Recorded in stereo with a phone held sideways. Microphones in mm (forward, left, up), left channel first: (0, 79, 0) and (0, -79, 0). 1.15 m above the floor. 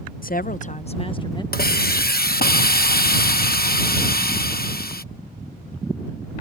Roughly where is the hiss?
Left.